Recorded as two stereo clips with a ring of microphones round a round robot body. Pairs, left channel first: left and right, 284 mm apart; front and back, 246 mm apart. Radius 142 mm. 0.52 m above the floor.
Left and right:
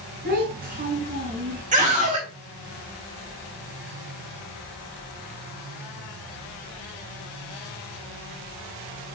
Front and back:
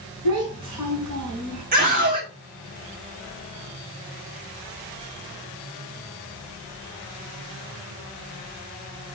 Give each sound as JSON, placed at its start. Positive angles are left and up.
{"t": 0.2, "sound": "a child speaking", "azimuth_deg": -150, "distance_m": 3.0}
{"t": 1.7, "sound": "a scream", "azimuth_deg": -140, "distance_m": 1.5}